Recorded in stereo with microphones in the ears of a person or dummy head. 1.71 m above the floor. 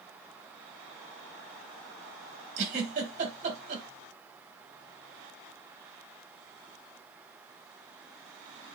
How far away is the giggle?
About 1.6 m.